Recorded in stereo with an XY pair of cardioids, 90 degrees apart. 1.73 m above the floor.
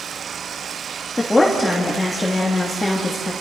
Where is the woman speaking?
20° left, 3 m.